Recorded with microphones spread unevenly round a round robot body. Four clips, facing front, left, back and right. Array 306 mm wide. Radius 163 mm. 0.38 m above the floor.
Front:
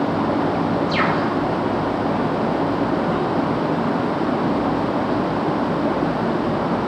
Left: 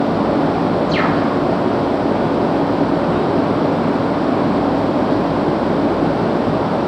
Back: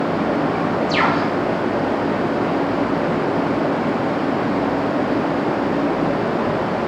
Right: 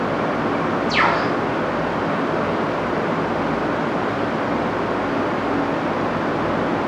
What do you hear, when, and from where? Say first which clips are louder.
0.9 s a bird: left 3 dB, back 2 dB; 175° left, 3.5 m